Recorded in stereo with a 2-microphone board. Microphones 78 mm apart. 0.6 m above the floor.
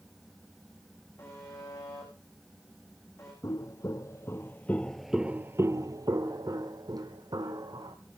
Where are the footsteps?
45° left (ahead or behind), 1.5 m; by 8.0 s 60° right (ahead or behind), 2 m.